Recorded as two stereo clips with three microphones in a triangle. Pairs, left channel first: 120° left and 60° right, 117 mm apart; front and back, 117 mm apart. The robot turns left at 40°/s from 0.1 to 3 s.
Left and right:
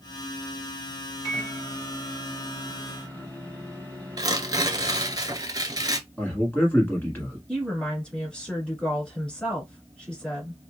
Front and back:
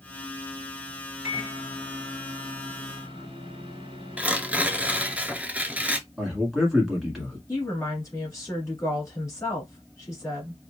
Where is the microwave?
100° right, 2.0 m; by 5.2 s 170° right, 2.0 m.